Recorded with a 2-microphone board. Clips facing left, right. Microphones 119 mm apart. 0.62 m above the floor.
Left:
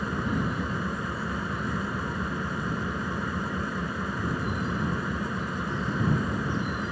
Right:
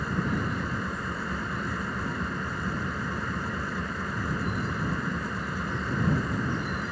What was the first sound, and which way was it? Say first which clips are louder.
An engine running: left 1 dB; 10° left (ahead or behind).